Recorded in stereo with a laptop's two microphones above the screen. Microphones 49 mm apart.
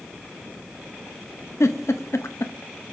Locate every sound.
1.6 s a giggle: 85° left, 0.8 m